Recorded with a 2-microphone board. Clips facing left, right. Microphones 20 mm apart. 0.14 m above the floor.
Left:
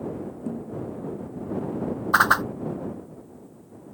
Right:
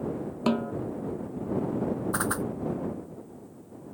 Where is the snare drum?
75° right (ahead or behind).